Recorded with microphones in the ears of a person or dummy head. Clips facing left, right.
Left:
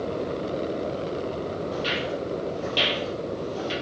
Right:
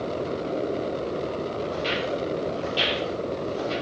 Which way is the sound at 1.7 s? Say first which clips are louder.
Right 1 dB; 10° left (ahead or behind).